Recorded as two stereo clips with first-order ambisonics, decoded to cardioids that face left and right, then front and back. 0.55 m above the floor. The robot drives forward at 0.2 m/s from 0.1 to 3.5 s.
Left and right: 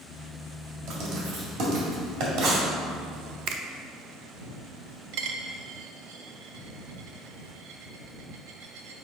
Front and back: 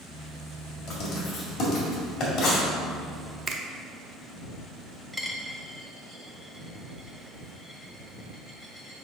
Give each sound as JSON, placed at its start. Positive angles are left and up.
{"t": 0.9, "sound": "writing", "azimuth_deg": -55, "distance_m": 2.0}
{"t": 3.5, "sound": "a finger snap", "azimuth_deg": -115, "distance_m": 0.6}
{"t": 5.1, "sound": "a dropped coin", "azimuth_deg": -85, "distance_m": 0.7}